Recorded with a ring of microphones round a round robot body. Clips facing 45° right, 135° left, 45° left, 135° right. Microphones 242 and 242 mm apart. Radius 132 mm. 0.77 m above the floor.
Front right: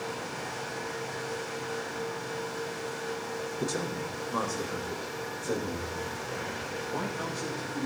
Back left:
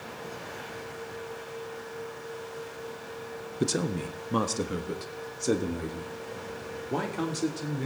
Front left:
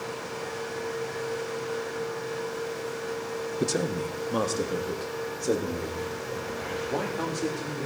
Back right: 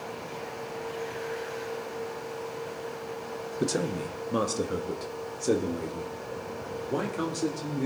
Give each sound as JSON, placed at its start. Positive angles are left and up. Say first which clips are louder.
{"t": 3.6, "sound": "a man speaking", "louder": "back left 6 dB, even", "azimuth_deg": 135, "distance_m": 1.1}